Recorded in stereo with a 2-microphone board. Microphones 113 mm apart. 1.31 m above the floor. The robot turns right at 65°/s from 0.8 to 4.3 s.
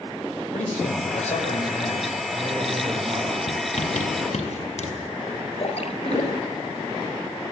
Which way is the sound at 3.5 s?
50° left (ahead or behind).